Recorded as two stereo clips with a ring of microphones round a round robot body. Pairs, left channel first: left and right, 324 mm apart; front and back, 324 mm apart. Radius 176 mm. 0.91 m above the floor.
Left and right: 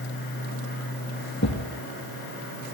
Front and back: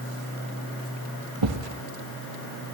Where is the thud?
150° left, 3 m.